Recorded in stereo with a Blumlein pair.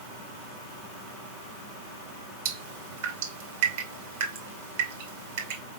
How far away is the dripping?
About 2 m.